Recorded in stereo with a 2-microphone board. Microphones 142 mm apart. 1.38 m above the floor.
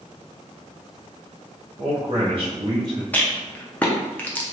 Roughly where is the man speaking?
Right.